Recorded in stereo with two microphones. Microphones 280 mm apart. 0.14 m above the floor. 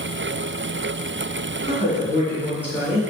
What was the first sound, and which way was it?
A woman speaking, 20° right (ahead or behind).